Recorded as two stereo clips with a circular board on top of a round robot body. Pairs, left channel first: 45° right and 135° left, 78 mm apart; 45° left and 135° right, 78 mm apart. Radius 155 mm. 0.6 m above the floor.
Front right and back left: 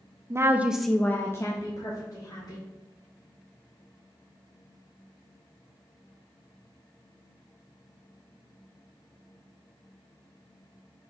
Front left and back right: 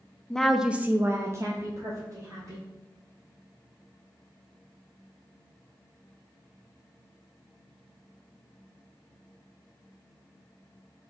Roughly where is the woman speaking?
Behind left.